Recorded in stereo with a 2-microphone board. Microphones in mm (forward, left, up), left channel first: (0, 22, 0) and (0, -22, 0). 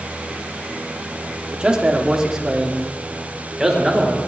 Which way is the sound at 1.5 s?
20° right (ahead or behind).